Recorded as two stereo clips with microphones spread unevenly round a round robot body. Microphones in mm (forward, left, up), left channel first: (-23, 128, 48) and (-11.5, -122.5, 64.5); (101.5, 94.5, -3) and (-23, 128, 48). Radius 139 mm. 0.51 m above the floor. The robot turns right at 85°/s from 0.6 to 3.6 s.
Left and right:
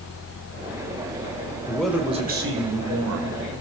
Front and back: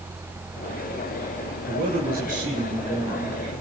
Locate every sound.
1.7 s a man speaking: 165° left, 3 m; by 3.4 s 50° right, 3 m